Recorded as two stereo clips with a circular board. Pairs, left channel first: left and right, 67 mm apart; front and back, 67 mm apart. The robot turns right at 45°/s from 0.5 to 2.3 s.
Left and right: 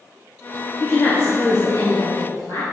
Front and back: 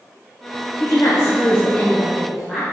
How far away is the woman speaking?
About 2.0 m.